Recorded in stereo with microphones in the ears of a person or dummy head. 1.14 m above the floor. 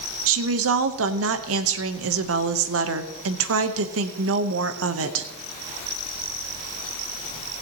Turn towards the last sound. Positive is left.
turn(degrees=-70)  # may be behind; listen again after turning